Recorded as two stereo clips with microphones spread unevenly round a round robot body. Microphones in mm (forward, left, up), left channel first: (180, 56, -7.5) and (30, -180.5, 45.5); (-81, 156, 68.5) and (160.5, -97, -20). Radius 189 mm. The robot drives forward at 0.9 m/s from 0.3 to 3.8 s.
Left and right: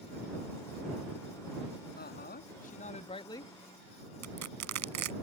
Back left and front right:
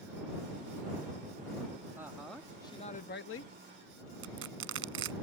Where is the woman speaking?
25° left; by 3.5 s 110° left.